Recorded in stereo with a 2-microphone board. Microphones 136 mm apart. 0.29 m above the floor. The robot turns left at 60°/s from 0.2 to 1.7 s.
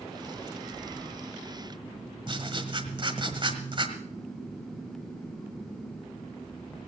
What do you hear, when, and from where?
2.3 s writing: 40° right (ahead or behind), 1.4 m